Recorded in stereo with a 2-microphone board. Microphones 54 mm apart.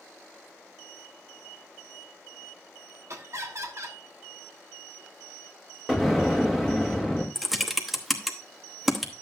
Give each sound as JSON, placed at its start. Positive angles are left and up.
{"t": 3.1, "sound": "laughter", "side_deg": -60, "distance_m": 1.5}
{"t": 5.9, "sound": "an explosion", "side_deg": -5, "distance_m": 1.9}
{"t": 7.3, "sound": "typing on a keyboard", "side_deg": 0, "distance_m": 1.0}